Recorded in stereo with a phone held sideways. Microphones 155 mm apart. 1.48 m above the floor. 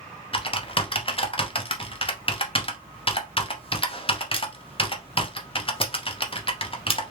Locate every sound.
0.3 s typing on a keyboard: 40° left (ahead or behind), 0.7 m